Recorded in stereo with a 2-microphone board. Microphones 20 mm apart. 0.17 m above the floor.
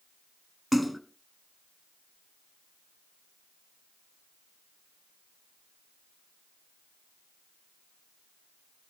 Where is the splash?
Centre (ahead or behind), 1.4 m.